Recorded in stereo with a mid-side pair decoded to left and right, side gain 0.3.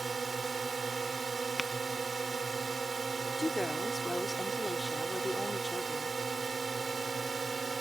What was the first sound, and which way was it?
A drone, 45° right.